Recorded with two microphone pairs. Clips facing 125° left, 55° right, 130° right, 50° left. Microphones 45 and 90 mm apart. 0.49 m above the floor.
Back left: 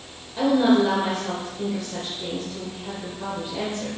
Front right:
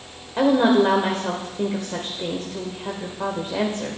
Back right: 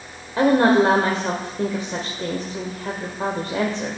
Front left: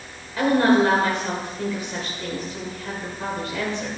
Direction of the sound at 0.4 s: 85° right.